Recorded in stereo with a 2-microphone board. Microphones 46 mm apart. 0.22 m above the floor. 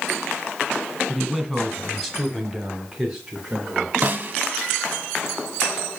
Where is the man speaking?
5° left (ahead or behind), 2.5 m; by 3.9 s 5° right (ahead or behind), 2.5 m.